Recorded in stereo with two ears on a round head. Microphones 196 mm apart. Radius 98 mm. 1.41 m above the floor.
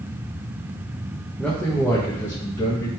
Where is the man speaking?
5° left (ahead or behind), 1.1 m; by 2.9 s 15° left (ahead or behind), 2 m.